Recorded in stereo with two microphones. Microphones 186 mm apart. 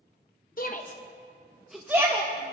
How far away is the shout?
About 0.7 m.